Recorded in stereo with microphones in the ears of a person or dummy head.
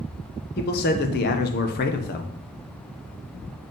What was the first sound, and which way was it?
A man speaking, 45° left (ahead or behind).